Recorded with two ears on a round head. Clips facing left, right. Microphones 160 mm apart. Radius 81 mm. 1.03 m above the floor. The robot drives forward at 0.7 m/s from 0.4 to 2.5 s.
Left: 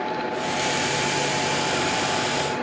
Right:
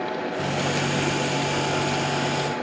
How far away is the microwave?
About 1.2 m.